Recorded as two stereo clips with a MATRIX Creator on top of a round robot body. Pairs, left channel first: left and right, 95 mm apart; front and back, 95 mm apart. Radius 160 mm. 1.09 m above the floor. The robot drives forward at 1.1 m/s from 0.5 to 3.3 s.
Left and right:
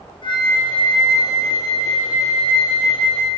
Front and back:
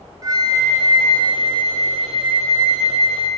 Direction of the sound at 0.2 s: 130° left.